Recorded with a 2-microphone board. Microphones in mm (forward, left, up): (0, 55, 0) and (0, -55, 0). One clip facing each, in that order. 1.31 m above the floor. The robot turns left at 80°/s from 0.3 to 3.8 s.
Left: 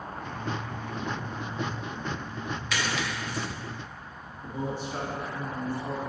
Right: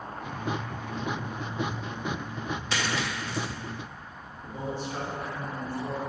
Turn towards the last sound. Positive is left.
turn(degrees=15)  # may be behind; listen again after turning